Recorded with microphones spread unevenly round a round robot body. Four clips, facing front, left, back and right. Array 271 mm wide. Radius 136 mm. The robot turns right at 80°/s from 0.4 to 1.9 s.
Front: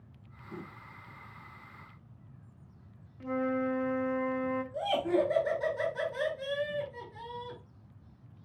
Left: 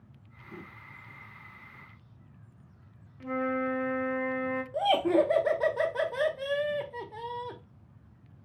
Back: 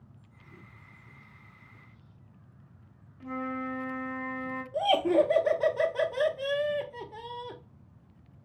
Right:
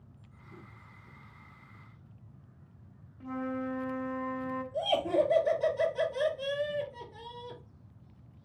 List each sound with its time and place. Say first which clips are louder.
3.2 s a flute: left 5 dB, front 4 dB; 20° left, 0.9 m
4.7 s laughter: left 4 dB, back 6 dB; 125° left, 1.0 m